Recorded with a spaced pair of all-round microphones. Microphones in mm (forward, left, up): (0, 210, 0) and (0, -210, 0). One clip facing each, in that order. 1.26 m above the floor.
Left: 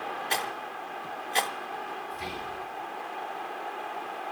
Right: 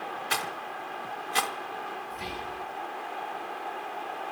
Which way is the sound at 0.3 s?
20° right (ahead or behind).